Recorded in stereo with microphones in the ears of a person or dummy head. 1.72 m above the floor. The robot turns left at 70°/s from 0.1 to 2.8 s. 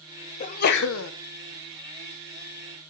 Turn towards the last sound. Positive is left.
turn(degrees=-30)